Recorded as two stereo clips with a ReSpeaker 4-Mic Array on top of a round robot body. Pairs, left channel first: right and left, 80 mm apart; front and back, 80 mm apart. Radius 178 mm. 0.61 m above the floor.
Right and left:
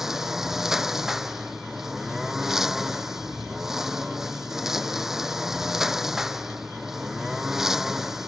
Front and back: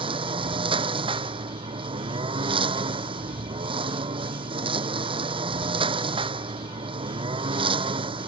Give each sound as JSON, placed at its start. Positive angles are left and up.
{"t": 0.0, "sound": "a lawn mower", "azimuth_deg": 175}